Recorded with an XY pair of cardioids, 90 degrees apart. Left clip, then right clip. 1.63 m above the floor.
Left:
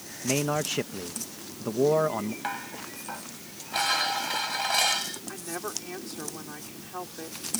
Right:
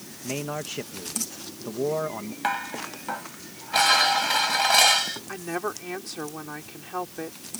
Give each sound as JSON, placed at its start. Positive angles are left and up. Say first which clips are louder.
{"t": 0.2, "sound": "a man speaking", "louder": "left 4 dB", "azimuth_deg": 35}
{"t": 2.4, "sound": "dishes clattering", "louder": "right 6 dB", "azimuth_deg": -50}
{"t": 5.3, "sound": "a woman speaking", "louder": "right 5 dB", "azimuth_deg": -45}